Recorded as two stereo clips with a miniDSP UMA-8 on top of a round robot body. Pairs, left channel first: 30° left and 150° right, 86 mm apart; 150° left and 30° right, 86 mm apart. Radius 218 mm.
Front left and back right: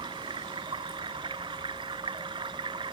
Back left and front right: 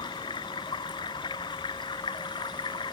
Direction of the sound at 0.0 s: 175° right.